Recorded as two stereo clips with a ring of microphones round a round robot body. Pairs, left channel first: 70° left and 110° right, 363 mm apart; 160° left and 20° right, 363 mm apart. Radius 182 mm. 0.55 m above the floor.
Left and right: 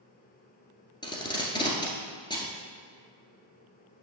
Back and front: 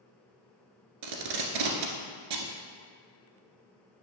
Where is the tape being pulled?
10° right, 1.5 m.